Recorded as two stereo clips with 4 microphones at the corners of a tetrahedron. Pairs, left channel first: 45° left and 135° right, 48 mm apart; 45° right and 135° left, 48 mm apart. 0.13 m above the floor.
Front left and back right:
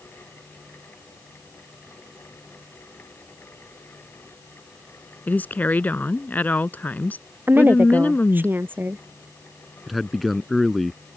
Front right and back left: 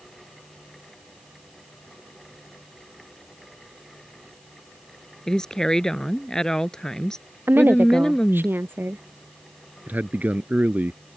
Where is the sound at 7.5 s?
Straight behind.